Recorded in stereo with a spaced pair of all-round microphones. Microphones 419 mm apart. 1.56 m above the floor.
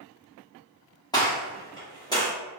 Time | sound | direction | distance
1.1 | a gunshot | 10° left (ahead or behind) | 1.1 m